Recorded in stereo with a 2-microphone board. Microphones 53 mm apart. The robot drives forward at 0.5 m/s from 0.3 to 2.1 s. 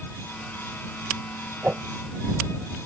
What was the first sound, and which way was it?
A whoosh, 35° right (ahead or behind).